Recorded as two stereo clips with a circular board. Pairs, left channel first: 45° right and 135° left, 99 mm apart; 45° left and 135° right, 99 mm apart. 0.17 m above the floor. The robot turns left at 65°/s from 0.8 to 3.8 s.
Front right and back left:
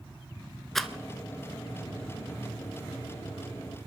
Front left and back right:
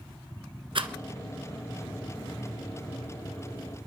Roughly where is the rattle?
Behind right.